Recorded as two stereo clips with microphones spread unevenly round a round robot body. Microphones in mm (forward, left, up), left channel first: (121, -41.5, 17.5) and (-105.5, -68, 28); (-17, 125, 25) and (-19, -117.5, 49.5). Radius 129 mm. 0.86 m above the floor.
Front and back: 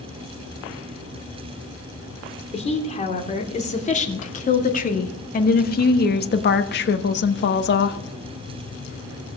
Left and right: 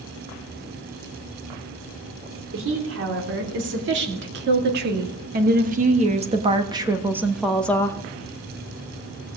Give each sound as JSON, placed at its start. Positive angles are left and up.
{"t": 2.5, "sound": "a woman speaking", "azimuth_deg": -55, "distance_m": 3.0}